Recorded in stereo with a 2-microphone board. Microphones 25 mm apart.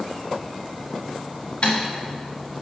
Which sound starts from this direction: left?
Typing on a keyboard, at 1.6 s.